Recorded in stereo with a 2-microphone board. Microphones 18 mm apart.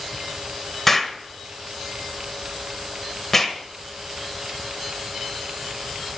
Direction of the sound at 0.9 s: 15° left (ahead or behind).